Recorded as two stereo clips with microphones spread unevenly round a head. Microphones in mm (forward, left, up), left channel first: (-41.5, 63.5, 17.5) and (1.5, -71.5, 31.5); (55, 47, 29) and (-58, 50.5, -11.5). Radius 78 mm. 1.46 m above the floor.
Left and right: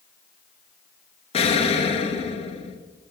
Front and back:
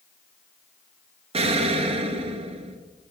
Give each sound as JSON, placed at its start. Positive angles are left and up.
{"t": 1.3, "sound": "an explosion", "azimuth_deg": 155, "distance_m": 0.6}